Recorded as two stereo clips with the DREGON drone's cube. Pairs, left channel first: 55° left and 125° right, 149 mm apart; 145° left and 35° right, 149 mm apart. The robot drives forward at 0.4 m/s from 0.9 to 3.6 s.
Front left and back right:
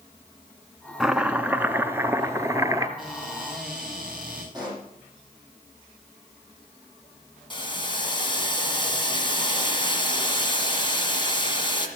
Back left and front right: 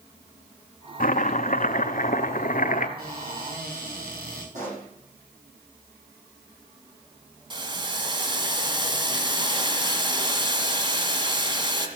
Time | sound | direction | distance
1.0 | chopping | 150° left | 0.6 m
3.0 | a cupboard door | 40° right | 8.5 m
4.5 | a pop | 65° right | 8 m
7.5 | boiling | 10° left | 1.7 m